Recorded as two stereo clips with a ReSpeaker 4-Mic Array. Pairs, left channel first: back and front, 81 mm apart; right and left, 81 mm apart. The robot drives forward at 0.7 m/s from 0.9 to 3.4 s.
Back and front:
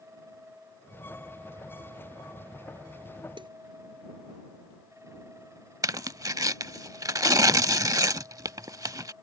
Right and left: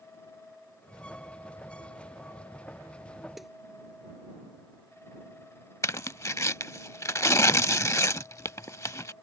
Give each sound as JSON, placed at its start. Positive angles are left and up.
{"t": 3.4, "sound": "a snare drum", "azimuth_deg": 0}
{"t": 5.8, "sound": "tearing paper", "azimuth_deg": -40}